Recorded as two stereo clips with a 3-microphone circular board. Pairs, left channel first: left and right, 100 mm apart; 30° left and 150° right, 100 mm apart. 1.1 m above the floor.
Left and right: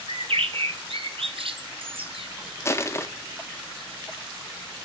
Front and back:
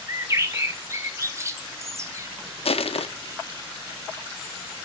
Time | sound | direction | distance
0.1 | a bird | 90° right | 0.7 m
2.6 | crushing | 30° left | 0.6 m